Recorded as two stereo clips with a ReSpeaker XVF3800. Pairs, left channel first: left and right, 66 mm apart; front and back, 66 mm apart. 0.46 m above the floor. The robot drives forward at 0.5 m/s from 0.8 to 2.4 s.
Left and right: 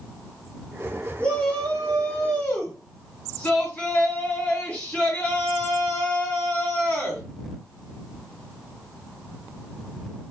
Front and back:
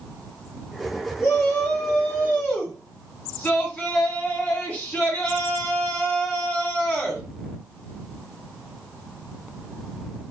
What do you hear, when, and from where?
1.2 s a shout: 30° left, 2.0 m; by 7.2 s 50° left, 1.7 m